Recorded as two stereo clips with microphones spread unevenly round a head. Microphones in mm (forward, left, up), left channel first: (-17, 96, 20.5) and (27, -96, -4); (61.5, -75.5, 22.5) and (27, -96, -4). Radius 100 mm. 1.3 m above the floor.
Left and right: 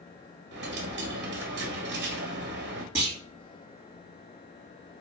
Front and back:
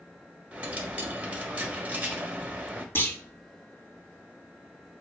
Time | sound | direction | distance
0.5 | a dropped coin | 60° right | 1.2 m
3.0 | a clunk | straight ahead | 3 m